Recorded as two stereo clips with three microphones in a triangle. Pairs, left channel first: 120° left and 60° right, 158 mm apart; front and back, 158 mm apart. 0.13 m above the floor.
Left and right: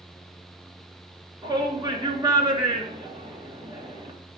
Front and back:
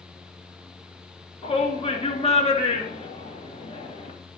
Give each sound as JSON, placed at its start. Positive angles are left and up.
{"t": 1.4, "sound": "a shout", "azimuth_deg": -10, "distance_m": 2.0}